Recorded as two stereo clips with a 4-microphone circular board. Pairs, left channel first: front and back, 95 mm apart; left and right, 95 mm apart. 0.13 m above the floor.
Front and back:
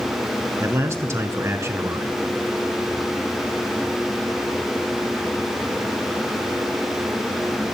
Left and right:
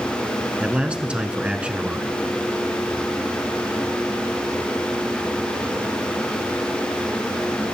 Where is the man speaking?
155° right, 1.2 m.